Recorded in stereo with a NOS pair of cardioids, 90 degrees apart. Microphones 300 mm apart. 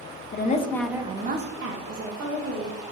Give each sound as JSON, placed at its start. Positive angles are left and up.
{"t": 0.3, "sound": "a woman speaking", "azimuth_deg": 35, "distance_m": 0.7}